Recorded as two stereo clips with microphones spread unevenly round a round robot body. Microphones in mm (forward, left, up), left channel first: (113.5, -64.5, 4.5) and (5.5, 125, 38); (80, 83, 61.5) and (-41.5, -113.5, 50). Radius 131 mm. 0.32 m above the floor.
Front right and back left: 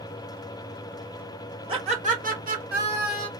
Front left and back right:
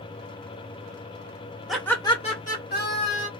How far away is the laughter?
About 1.1 m.